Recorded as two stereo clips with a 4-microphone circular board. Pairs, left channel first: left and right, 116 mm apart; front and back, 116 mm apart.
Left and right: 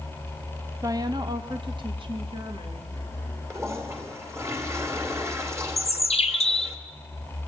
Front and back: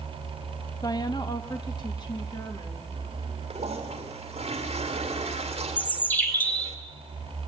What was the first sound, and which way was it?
A woman speaking, 40° right.